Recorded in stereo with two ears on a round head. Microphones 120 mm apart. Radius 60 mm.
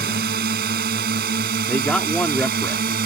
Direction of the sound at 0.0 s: 80° right.